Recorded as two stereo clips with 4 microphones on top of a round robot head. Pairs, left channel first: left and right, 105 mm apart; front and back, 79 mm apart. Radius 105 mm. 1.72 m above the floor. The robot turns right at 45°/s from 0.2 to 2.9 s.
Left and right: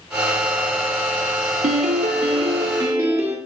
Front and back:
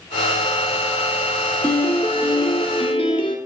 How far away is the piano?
About 3 m.